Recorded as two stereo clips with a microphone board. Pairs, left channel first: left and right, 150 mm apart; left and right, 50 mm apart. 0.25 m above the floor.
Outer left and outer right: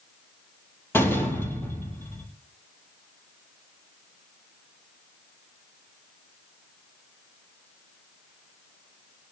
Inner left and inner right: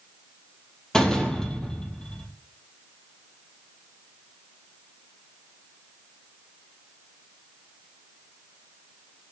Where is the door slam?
15° left (ahead or behind), 4.5 m.